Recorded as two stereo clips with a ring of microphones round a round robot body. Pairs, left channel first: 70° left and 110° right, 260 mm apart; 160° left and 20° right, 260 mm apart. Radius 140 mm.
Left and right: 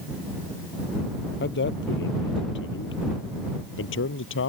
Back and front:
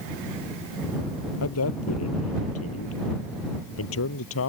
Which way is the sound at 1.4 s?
120° left.